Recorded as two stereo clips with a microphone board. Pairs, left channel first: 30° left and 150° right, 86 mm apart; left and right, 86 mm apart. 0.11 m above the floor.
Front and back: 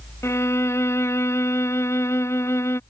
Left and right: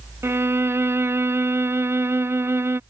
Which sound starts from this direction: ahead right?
A violin, at 0.2 s.